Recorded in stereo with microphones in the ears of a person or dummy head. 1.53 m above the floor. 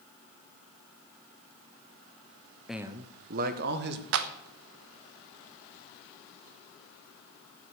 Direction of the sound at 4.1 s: 65° right (ahead or behind).